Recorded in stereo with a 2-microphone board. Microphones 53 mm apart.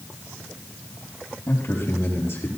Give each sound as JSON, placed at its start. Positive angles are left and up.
{"t": 1.5, "sound": "a man speaking", "side_deg": 40, "distance_m": 4.0}